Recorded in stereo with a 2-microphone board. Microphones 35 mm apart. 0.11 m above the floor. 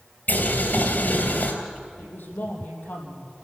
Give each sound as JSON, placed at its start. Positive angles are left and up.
{"t": 0.3, "sound": "boiling", "side_deg": 50, "distance_m": 3.0}
{"t": 2.0, "sound": "a woman speaking", "side_deg": 60, "distance_m": 4.5}